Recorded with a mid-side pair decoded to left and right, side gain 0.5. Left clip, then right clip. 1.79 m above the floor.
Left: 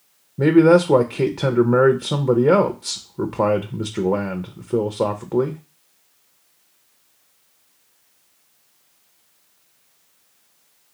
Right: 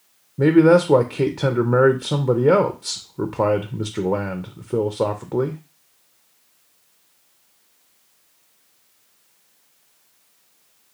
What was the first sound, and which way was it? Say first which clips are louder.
A man speaking: even; 5° left.